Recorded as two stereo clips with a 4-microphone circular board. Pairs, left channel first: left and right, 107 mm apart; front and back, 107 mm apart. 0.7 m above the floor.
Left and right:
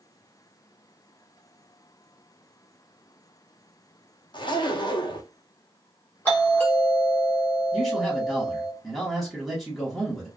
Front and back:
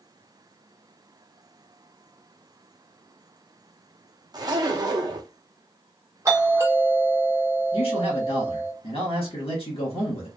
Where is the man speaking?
Straight ahead, 1.5 m.